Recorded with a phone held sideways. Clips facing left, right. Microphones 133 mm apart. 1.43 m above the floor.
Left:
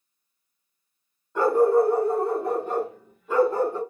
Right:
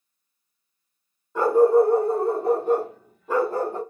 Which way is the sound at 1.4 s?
5° right (ahead or behind).